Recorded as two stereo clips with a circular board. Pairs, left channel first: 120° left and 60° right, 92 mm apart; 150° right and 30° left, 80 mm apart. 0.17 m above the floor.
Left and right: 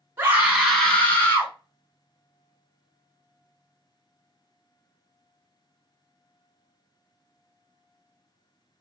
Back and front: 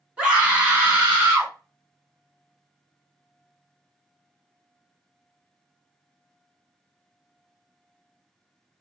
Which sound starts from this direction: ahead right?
A scream, at 0.2 s.